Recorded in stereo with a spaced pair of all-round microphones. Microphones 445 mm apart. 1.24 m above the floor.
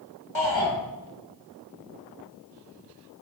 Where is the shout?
85° left, 3.5 m.